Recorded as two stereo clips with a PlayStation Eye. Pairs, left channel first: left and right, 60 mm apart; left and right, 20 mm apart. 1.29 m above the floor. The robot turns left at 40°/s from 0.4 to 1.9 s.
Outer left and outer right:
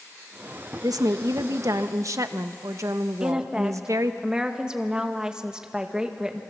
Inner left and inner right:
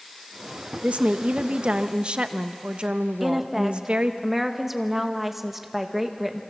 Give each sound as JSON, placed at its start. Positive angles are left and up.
{"t": 0.8, "sound": "a woman speaking", "azimuth_deg": -80, "distance_m": 1.0}
{"t": 3.2, "sound": "a woman speaking", "side_deg": -15, "distance_m": 1.6}